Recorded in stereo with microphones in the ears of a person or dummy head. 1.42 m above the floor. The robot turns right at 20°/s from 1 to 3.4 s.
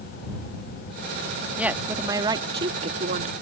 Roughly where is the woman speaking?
Behind.